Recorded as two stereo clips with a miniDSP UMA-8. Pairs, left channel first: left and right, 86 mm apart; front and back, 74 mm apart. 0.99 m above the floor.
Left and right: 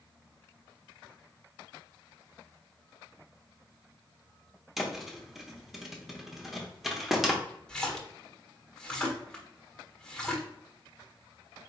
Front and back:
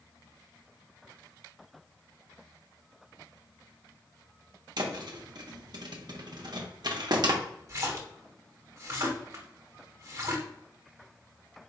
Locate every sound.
4.8 s a thud: straight behind, 0.9 m
7.7 s a splash: 165° left, 1.1 m